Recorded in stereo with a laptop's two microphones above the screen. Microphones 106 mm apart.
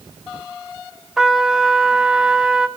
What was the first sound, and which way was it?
A trumpet, 5° right (ahead or behind).